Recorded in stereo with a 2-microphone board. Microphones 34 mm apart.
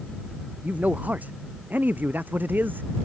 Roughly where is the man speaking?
Right.